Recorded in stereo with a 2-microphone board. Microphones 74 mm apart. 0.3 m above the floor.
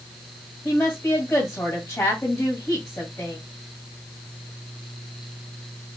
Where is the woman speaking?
35° left (ahead or behind), 1.9 m.